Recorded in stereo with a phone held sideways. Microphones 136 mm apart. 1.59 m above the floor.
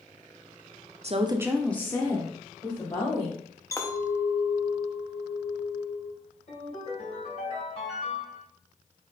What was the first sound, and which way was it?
A woman speaking, 50° right (ahead or behind).